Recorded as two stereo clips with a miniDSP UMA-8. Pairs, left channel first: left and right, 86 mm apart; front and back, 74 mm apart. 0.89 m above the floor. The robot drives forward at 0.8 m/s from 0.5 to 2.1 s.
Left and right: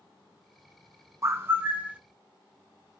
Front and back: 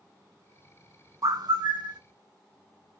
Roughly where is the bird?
Behind right.